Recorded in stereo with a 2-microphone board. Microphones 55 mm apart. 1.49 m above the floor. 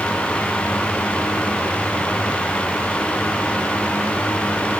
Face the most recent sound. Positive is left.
No sound to turn to.